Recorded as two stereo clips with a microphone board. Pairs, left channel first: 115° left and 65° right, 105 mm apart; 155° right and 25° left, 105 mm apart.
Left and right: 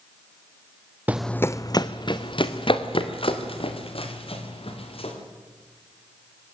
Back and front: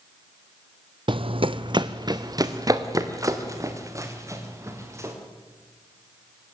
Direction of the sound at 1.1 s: Straight ahead.